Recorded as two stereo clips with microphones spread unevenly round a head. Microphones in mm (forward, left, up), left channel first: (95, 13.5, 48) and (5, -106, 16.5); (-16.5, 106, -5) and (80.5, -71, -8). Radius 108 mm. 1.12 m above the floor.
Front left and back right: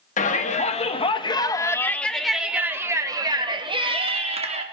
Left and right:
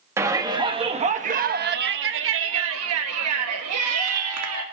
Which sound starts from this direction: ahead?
A shout, at 0.2 s.